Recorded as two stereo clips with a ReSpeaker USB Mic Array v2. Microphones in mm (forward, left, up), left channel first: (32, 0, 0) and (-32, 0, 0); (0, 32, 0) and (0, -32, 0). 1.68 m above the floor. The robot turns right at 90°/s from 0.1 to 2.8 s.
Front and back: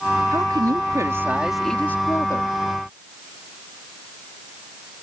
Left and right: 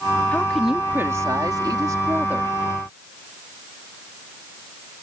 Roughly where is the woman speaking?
Behind left.